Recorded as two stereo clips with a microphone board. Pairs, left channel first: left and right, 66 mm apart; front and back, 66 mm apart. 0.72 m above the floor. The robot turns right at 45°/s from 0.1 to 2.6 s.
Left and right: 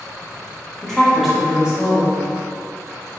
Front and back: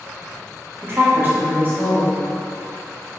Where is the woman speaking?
170° left, 1.2 m; by 2.2 s 125° right, 1.2 m.